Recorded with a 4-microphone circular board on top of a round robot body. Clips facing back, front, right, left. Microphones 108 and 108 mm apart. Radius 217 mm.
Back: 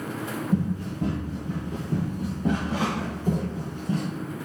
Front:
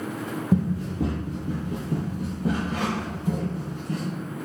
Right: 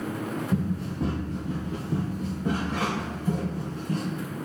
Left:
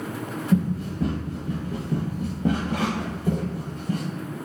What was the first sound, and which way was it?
Running footsteps, 5° right.